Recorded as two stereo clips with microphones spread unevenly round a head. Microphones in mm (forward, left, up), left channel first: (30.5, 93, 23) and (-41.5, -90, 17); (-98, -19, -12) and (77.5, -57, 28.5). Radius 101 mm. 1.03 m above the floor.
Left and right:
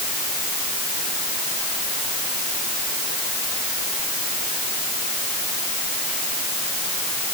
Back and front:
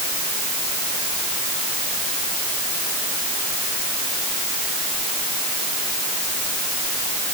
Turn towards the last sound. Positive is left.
No sound to turn to.